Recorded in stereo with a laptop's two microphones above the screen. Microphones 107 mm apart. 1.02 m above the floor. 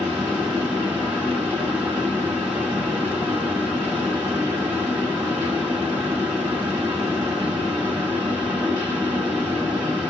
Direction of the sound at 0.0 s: 15° right (ahead or behind).